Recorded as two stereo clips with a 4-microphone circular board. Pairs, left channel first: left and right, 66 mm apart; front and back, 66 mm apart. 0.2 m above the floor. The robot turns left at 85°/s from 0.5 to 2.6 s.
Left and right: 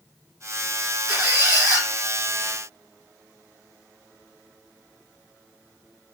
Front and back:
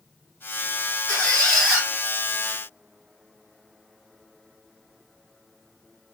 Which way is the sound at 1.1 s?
40° right.